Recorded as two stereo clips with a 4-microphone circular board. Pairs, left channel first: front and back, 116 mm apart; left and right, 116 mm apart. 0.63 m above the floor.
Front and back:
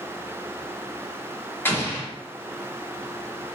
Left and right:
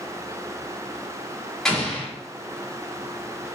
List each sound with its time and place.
1.6 s an explosion: 15° left, 1.1 m